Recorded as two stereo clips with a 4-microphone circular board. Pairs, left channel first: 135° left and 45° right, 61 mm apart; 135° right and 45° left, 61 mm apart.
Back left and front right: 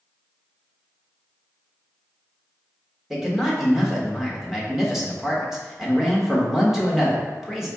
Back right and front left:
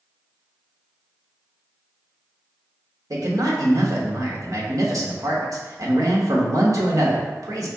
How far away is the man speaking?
About 1.0 m.